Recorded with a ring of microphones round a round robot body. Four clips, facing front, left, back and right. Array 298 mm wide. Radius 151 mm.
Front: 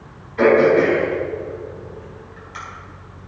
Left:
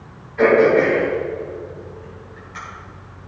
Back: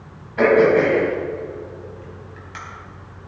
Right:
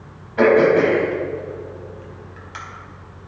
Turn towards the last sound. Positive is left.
turn(degrees=-115)